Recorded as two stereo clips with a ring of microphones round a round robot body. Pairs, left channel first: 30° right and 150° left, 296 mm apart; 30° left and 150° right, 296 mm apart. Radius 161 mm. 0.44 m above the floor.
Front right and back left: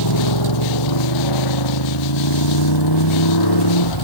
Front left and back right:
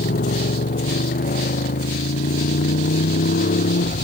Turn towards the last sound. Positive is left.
turn(degrees=-35)